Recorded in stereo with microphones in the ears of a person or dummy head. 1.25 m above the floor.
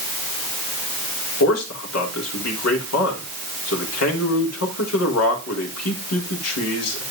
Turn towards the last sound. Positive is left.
turn(degrees=80)